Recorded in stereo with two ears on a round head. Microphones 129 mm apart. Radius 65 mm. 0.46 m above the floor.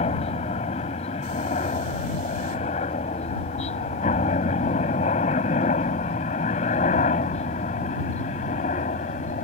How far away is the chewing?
I don't hear chewing.